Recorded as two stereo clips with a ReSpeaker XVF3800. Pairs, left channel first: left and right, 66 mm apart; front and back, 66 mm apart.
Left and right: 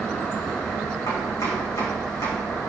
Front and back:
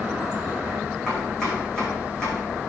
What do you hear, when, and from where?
1.1 s chopping: 80° left, 5 m